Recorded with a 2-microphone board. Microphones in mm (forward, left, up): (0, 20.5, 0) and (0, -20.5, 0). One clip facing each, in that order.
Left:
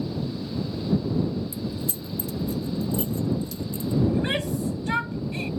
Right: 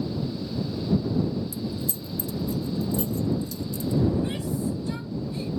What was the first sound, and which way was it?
Keys jangling, 30° left (ahead or behind).